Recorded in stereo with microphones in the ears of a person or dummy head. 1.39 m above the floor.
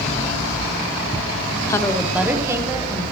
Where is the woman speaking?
20° left (ahead or behind), 0.6 m; by 3.0 s 20° right (ahead or behind), 2 m.